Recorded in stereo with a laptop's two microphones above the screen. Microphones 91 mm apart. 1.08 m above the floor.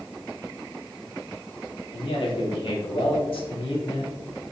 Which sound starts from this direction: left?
A man speaking, at 1.9 s.